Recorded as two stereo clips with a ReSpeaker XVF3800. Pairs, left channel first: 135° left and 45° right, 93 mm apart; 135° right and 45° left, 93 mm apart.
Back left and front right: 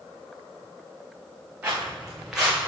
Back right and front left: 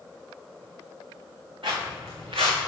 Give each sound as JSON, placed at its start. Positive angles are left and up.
{"t": 1.6, "sound": "footsteps", "azimuth_deg": 35, "distance_m": 2.5}